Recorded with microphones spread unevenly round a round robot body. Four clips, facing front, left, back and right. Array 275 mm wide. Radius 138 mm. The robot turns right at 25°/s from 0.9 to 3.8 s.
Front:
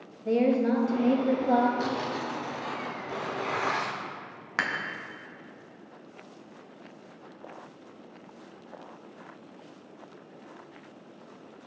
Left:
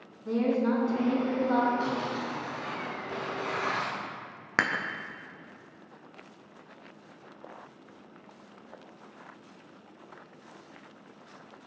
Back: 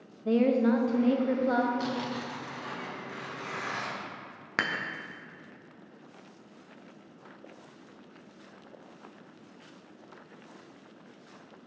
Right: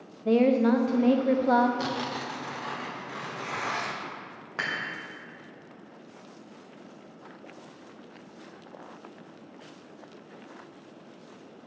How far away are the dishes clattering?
About 0.6 m.